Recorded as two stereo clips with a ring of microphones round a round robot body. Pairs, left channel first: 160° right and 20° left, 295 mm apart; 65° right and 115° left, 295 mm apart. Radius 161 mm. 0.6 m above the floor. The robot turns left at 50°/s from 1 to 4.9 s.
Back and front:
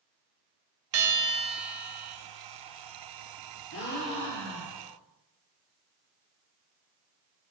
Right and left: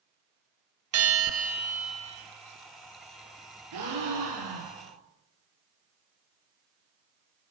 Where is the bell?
70° left, 1.6 m; by 2.2 s 10° left, 1.6 m.